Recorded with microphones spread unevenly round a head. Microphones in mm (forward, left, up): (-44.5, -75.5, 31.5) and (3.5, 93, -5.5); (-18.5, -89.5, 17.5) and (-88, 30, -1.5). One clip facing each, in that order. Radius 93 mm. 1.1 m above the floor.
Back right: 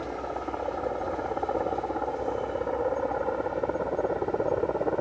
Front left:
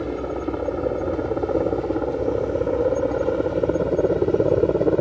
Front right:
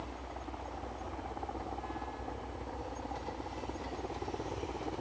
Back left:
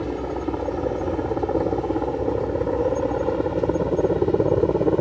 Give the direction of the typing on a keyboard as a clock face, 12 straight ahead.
No typing on a keyboard in this recording.